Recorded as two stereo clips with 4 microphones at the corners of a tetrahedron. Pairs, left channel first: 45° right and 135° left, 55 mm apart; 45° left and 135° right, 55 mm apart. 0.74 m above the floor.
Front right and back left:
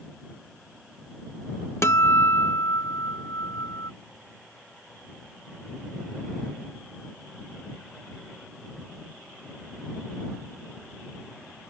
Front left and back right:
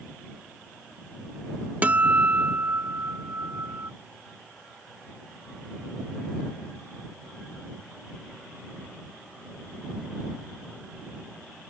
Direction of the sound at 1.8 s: 75° right.